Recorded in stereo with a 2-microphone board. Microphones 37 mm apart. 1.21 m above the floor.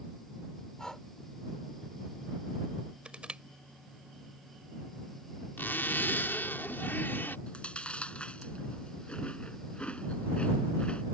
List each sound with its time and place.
0.8 s breathing: 20° left (ahead or behind)
3.0 s crushing: 30° right (ahead or behind)
5.6 s a zipper: 75° left (ahead or behind)
7.5 s chewing: 30° left (ahead or behind)